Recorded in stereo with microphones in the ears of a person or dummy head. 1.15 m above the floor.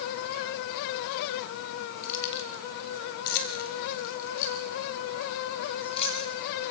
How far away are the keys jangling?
About 3.5 m.